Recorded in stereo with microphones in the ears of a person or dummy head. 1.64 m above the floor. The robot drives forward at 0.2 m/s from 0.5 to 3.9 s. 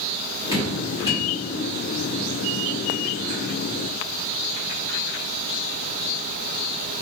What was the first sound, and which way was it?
Dripping, 25° right (ahead or behind).